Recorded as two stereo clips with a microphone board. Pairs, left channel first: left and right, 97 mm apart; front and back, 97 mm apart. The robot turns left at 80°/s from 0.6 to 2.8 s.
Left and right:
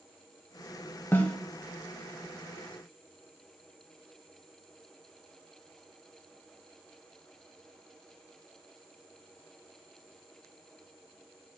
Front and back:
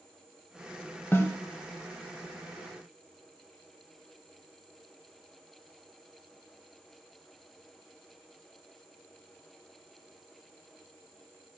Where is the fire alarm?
I don't hear a fire alarm.